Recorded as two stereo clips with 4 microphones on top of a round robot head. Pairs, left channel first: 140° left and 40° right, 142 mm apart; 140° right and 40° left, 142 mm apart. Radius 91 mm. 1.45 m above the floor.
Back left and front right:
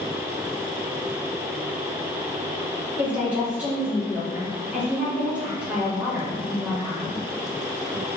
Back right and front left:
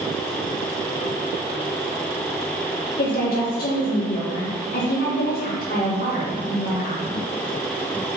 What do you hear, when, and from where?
3.0 s a woman speaking: 120° right, 3.5 m